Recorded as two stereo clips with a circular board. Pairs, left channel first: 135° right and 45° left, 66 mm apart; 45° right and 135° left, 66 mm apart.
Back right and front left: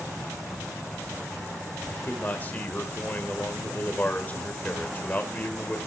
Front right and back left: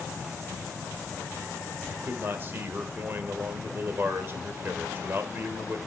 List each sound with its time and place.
1.9 s a man speaking: 175° left, 1.4 m